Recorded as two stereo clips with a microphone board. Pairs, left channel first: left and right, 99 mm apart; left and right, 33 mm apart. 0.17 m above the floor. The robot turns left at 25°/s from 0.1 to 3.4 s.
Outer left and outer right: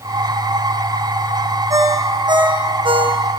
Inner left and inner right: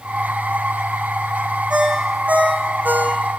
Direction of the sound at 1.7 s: 35° right.